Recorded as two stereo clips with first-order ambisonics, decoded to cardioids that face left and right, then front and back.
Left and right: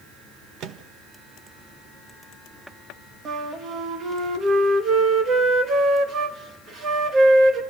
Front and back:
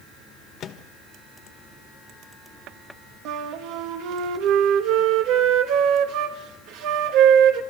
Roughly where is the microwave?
Ahead right.